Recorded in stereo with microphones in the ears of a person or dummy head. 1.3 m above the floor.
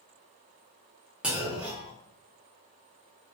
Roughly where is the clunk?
Centre.